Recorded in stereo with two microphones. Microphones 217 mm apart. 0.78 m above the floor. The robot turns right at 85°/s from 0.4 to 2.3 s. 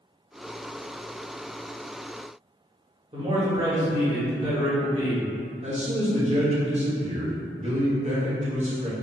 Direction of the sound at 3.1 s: 25° right (ahead or behind).